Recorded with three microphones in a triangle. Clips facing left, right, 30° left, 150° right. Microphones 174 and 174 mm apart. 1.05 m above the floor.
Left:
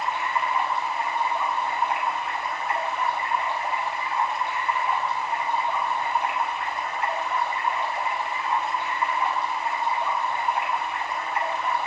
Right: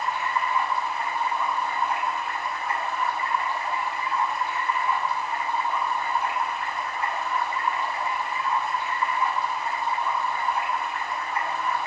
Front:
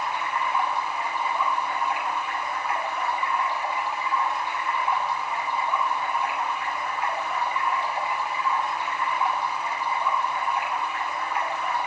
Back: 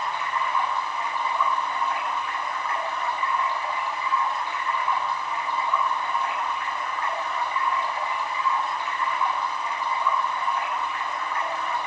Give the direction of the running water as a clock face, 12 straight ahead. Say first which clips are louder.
Even, even; 8 o'clock.